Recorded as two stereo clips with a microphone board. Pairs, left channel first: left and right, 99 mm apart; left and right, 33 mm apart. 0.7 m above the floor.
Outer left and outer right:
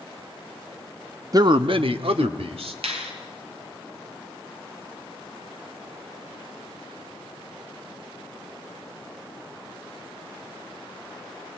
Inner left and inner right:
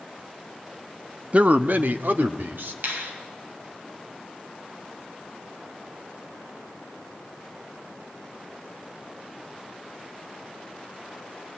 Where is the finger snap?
80° right, 3 m.